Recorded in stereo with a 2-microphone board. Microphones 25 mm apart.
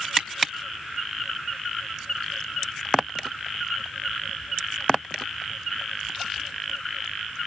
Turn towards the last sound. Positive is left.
turn(degrees=-35)  # may be behind; listen again after turning